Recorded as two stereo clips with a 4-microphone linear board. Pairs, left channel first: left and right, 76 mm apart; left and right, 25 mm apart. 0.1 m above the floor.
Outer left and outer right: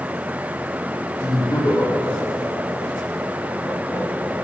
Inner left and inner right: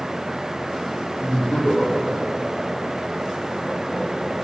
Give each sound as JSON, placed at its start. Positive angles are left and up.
{"t": 1.2, "sound": "laughter", "side_deg": 55, "distance_m": 3.0}